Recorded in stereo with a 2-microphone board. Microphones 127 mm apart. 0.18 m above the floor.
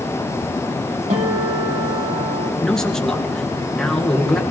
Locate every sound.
1.1 s a guitar: 70° right (ahead or behind), 3.5 m
2.6 s a man speaking: 5° left (ahead or behind), 3 m